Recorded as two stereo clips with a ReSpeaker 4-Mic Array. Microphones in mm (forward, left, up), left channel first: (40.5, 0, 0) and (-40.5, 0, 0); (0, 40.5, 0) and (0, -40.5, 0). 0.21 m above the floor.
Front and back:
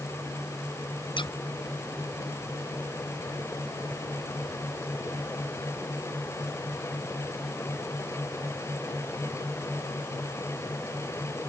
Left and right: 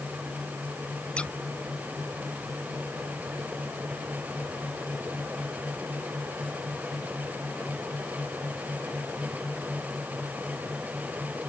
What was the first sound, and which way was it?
Scissors, 15° left.